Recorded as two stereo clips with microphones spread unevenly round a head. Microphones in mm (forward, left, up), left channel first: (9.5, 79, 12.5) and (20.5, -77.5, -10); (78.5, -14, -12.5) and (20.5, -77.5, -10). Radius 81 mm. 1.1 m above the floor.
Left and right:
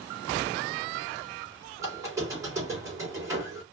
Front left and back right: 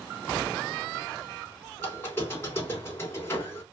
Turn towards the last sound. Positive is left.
turn(degrees=-15)